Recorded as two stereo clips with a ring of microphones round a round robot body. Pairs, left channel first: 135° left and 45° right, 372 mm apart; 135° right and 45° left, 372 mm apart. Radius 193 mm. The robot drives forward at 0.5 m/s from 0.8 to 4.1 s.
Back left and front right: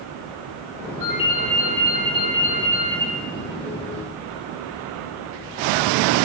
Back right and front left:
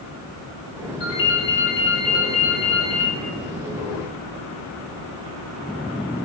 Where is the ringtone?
130° right, 3 m; by 3.1 s 140° right, 4 m.